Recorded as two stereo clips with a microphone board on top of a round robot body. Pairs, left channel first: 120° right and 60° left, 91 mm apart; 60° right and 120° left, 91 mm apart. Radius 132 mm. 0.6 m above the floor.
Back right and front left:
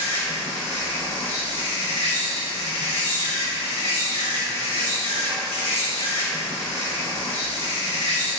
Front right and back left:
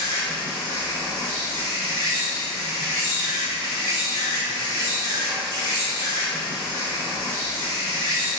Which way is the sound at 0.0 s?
110° right.